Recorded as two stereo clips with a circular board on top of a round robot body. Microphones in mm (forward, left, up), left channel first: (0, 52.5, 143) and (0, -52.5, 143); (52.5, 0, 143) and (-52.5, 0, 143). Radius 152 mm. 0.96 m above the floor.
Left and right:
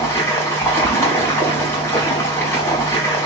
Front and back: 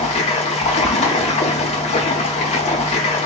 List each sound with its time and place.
0.0 s running water: 25° left, 1.1 m